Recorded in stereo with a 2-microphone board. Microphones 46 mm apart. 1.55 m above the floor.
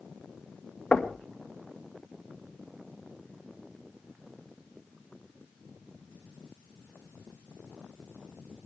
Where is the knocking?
25° left (ahead or behind), 1.7 m.